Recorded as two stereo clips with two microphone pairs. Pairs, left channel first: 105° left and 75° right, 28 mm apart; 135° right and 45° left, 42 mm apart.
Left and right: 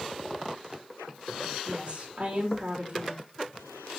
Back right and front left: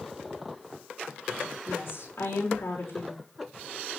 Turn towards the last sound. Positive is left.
turn(degrees=-120)